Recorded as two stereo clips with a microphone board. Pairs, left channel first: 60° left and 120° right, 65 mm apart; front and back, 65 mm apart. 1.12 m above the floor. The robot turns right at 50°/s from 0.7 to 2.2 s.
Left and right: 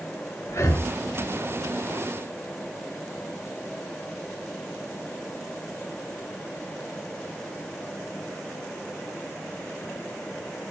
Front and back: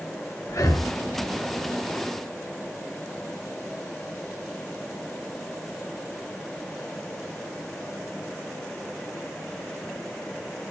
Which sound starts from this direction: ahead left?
Breathing, at 0.5 s.